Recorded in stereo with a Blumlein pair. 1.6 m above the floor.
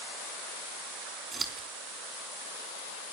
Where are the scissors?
10° right, 3.5 m.